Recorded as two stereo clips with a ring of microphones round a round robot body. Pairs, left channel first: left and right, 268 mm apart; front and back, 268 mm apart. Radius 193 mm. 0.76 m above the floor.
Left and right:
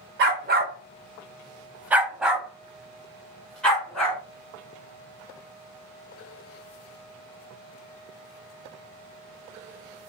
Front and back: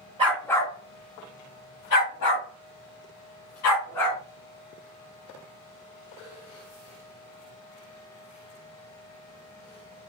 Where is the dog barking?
120° right, 0.5 m; by 4.2 s 5° left, 2.5 m.